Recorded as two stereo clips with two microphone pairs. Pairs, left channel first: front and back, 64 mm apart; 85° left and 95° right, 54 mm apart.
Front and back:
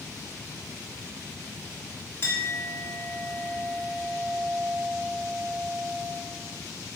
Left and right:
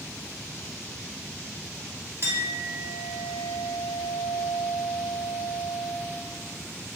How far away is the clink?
About 0.9 m.